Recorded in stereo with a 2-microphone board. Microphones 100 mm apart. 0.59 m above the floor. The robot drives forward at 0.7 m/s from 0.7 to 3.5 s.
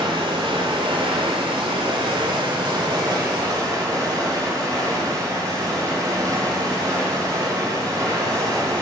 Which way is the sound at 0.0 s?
60° right (ahead or behind).